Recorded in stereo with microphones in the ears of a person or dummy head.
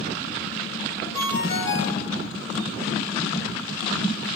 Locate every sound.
1.1 s a ringtone: 20° left (ahead or behind), 7 m